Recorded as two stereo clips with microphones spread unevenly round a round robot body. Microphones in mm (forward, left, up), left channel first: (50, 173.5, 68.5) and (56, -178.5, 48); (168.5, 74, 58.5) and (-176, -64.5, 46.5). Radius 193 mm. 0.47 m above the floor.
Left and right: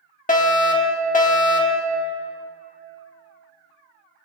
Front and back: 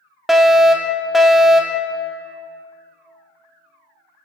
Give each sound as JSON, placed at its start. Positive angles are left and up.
{"t": 0.3, "sound": "a fire alarm", "azimuth_deg": 120, "distance_m": 1.7}